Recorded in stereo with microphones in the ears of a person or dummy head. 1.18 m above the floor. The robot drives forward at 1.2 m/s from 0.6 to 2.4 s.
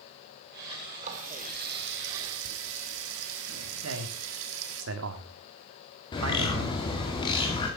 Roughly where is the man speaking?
Right.